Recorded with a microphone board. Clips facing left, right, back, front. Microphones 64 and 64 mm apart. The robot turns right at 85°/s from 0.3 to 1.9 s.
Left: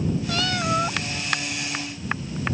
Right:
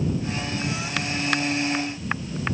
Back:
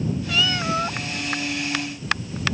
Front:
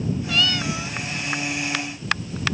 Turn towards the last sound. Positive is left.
turn(degrees=-135)